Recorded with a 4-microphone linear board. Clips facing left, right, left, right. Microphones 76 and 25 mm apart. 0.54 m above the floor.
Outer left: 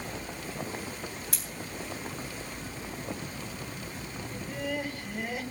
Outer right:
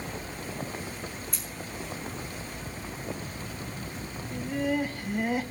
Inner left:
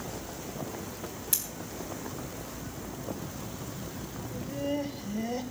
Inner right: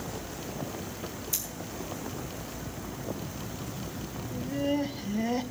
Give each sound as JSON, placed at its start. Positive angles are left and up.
{"t": 1.3, "sound": "scissors", "side_deg": 70, "distance_m": 3.5}
{"t": 4.3, "sound": "laughter", "side_deg": 0, "distance_m": 3.0}